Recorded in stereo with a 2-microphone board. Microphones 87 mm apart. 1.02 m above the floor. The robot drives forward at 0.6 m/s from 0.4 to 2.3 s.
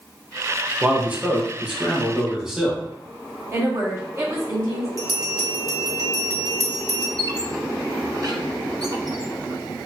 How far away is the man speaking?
About 0.6 m.